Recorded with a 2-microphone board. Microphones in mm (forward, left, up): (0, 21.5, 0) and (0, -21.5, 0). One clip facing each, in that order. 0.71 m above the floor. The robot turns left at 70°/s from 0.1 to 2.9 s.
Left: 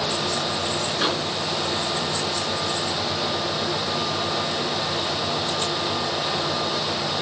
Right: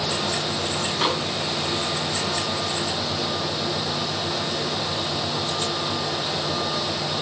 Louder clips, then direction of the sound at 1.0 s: Right 1 dB; 20° right (ahead or behind).